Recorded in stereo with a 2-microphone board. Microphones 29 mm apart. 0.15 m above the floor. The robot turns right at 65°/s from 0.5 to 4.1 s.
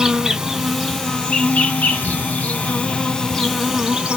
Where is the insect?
20° right, 1.4 m; by 4.2 s 145° right, 1.4 m.